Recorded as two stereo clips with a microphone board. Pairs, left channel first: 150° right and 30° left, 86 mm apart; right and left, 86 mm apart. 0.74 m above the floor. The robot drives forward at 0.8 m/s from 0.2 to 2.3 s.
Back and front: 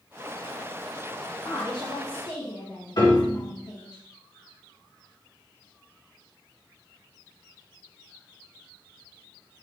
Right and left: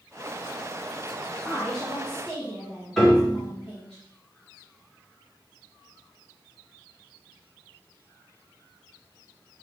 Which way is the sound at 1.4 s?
170° right.